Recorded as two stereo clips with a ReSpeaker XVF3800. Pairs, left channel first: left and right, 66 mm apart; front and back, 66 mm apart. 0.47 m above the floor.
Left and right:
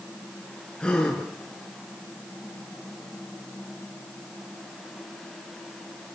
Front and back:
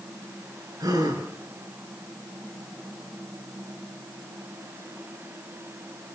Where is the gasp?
165° left, 7.5 m.